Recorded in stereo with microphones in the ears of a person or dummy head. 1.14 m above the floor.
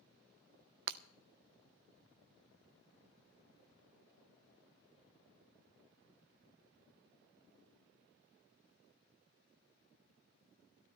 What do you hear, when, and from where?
0.9 s breaking glass: 60° right (ahead or behind), 0.6 m